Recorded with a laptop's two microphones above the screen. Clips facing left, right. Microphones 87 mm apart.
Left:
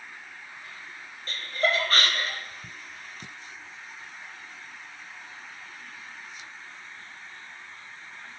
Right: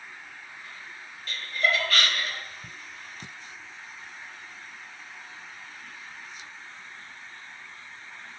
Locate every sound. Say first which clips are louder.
1.3 s laughter: left 1 dB; 35° left (ahead or behind), 0.7 m